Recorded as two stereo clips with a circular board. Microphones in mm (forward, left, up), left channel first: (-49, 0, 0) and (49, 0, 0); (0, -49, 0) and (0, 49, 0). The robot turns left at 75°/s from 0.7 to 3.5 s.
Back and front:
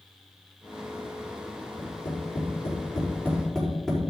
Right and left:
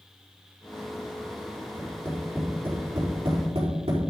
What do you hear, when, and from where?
1.8 s tapping: 135° right, 5 m; by 4.0 s 100° left, 5 m